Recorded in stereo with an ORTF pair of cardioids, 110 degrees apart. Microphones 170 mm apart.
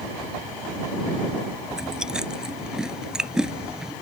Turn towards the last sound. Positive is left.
turn(degrees=-5)